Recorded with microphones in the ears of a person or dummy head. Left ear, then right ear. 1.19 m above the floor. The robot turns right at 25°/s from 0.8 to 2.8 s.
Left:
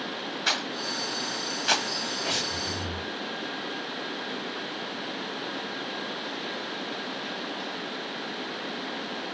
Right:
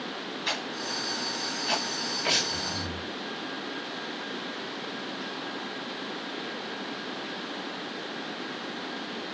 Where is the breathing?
30° right (ahead or behind), 1.9 m; by 3.1 s 45° right (ahead or behind), 1.9 m.